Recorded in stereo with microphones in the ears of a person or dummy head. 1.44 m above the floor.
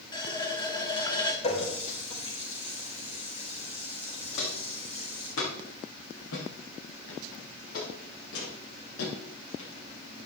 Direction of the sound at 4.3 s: 70° left (ahead or behind).